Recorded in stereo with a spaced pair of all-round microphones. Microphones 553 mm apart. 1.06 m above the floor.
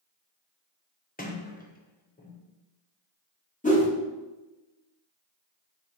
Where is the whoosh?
15° left (ahead or behind), 0.8 m.